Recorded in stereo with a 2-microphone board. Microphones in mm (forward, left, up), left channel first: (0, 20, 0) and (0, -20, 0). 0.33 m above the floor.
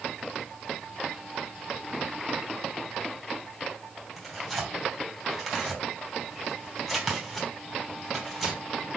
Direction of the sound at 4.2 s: Centre (ahead or behind).